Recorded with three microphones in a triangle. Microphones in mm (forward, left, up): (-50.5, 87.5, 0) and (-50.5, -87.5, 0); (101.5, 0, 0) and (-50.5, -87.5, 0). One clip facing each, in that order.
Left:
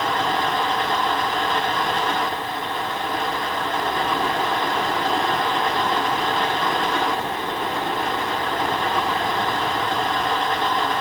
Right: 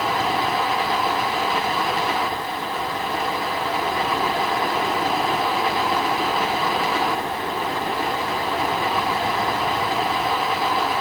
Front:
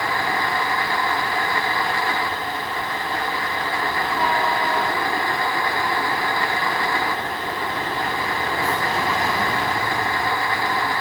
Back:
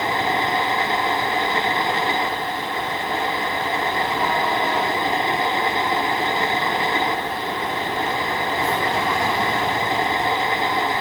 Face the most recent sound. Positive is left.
No sound to turn to.